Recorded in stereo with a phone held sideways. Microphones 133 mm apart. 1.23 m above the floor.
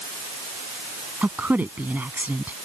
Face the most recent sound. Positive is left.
turn(degrees=-10)  # may be behind; listen again after turning